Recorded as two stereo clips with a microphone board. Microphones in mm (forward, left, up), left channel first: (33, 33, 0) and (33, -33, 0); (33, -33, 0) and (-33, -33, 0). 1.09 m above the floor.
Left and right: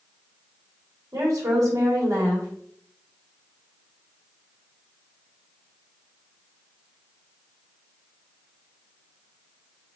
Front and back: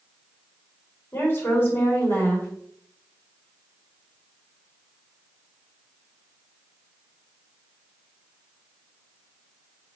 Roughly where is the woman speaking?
Ahead right.